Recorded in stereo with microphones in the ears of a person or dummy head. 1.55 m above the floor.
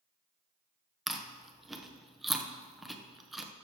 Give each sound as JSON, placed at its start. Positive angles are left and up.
{"t": 1.1, "sound": "chewing", "side_deg": 0, "distance_m": 1.0}